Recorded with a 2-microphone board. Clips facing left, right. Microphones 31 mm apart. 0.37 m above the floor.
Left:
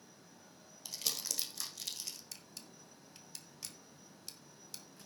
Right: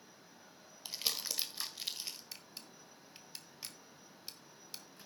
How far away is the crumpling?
About 1.5 m.